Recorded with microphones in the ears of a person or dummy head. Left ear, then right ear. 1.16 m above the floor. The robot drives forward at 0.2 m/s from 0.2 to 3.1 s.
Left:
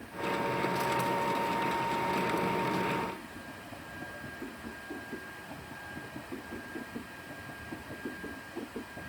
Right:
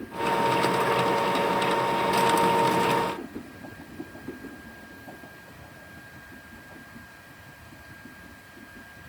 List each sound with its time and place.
Only background noise.